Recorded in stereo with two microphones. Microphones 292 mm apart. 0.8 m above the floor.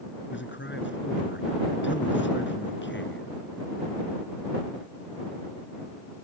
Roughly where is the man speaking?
Left.